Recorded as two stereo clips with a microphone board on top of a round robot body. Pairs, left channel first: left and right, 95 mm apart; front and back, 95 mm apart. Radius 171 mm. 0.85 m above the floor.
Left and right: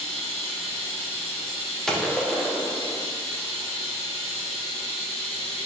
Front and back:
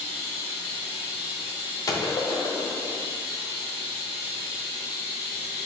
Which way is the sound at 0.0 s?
100° left.